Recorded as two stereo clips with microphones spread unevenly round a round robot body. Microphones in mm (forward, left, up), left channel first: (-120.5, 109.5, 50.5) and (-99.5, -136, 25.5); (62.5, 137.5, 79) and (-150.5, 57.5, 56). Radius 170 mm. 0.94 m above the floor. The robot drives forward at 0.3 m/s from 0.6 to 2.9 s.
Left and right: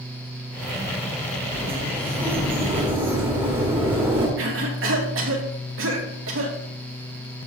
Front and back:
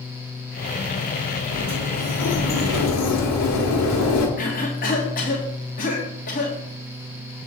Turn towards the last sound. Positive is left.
turn(degrees=-40)